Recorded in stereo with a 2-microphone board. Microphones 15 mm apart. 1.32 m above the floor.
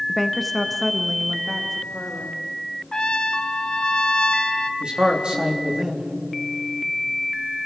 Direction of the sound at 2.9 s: 45° left (ahead or behind).